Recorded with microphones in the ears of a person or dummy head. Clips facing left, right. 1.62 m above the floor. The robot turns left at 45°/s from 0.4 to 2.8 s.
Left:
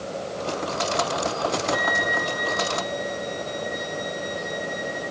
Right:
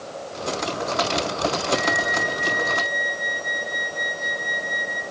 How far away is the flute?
About 1.7 m.